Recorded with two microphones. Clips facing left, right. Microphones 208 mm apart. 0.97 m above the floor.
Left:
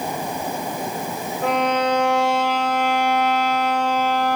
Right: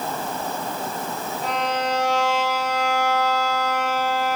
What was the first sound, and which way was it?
A violin, 60° left (ahead or behind).